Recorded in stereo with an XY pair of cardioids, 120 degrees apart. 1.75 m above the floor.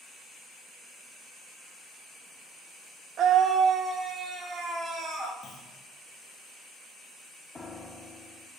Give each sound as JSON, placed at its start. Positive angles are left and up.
{"t": 3.2, "sound": "a scream", "azimuth_deg": -60, "distance_m": 0.6}
{"t": 5.4, "sound": "a clunk", "azimuth_deg": 35, "distance_m": 1.7}
{"t": 7.5, "sound": "a piano", "azimuth_deg": 20, "distance_m": 0.6}